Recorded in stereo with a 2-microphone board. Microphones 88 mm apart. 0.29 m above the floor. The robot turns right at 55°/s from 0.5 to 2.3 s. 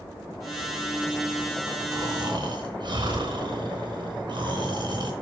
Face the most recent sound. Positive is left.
turn(degrees=-60)  # may be behind; listen again after turning